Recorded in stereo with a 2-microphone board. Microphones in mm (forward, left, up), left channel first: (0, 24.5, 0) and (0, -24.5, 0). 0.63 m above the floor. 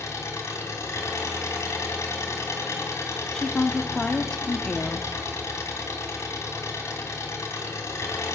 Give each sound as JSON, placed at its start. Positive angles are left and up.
{"t": 0.0, "sound": "an engine running", "side_deg": 80, "distance_m": 3.0}
{"t": 3.3, "sound": "a woman speaking", "side_deg": 15, "distance_m": 0.8}